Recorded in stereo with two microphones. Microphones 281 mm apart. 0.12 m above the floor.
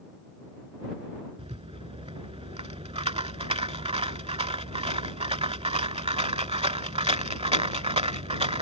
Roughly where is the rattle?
Right.